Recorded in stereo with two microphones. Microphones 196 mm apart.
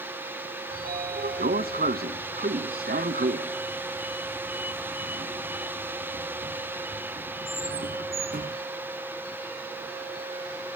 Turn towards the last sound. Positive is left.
turn(degrees=-55)  # may be behind; listen again after turning